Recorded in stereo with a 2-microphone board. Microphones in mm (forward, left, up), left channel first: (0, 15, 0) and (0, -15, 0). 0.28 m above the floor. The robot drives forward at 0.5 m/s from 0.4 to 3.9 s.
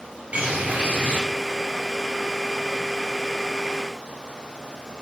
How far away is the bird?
About 2.5 m.